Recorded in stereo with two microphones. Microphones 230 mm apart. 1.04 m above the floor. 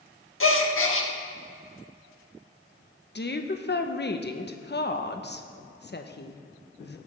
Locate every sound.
0.4 s a gasp: 60° left (ahead or behind), 0.9 m
3.1 s a woman speaking: 45° left (ahead or behind), 0.8 m